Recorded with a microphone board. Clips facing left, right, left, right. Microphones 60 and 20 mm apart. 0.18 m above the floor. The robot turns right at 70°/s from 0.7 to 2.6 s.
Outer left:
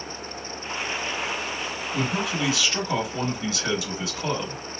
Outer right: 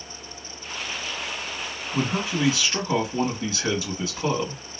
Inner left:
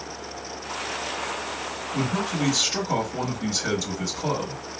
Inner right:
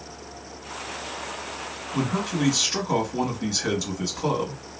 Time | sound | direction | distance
1.9 | a man speaking | 100° right | 1.9 m